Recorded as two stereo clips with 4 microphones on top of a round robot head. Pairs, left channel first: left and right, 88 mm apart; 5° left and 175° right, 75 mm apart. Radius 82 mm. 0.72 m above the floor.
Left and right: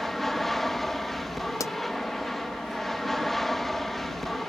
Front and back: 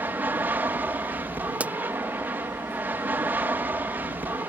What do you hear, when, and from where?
0.0 s an aircraft: 175° left
1.6 s a pop: 125° left